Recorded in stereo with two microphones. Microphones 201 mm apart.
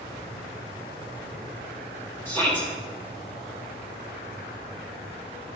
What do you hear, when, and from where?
2.2 s a shout: 15° left (ahead or behind), 3 m